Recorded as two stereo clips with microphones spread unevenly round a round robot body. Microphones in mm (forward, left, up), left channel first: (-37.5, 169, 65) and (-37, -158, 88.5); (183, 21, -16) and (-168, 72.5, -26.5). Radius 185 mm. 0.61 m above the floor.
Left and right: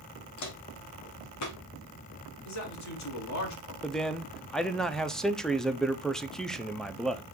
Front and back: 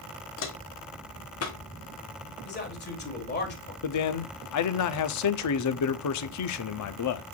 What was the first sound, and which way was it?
Footsteps, 45° left.